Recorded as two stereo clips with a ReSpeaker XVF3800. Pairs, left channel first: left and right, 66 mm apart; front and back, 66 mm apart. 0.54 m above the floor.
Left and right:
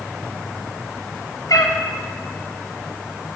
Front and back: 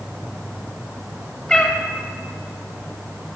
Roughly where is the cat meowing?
Left.